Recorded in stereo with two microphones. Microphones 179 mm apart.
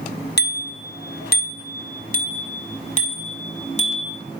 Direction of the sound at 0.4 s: 70° left (ahead or behind).